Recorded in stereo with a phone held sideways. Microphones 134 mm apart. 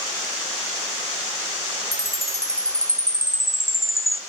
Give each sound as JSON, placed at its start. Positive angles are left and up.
{"t": 1.9, "sound": "a chime", "side_deg": -25, "distance_m": 0.7}